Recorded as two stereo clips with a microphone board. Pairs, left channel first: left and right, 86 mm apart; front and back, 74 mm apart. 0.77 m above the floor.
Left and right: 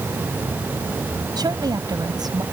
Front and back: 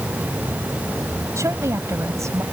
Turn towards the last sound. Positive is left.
turn(degrees=-130)